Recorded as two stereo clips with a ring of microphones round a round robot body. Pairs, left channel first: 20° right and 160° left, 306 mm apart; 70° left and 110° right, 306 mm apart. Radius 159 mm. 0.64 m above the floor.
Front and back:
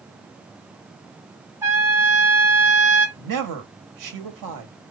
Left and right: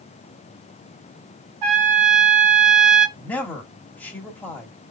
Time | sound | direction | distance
1.6 | a trumpet | 120° right | 1.3 m
3.2 | a man speaking | 150° left | 1.2 m